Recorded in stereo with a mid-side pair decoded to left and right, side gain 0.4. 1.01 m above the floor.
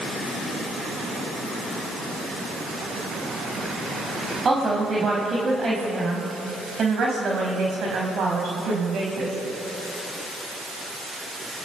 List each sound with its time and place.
4.5 s a woman speaking: 40° right, 5 m; by 9.3 s 75° right, 5.5 m